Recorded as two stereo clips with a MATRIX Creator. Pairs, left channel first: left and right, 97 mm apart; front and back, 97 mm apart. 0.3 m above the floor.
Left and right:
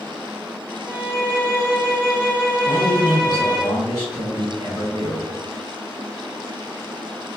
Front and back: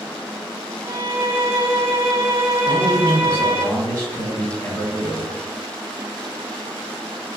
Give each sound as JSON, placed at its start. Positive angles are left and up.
{"t": 0.8, "sound": "a violin", "azimuth_deg": 145, "distance_m": 1.9}
{"t": 2.6, "sound": "a man speaking", "azimuth_deg": 40, "distance_m": 1.7}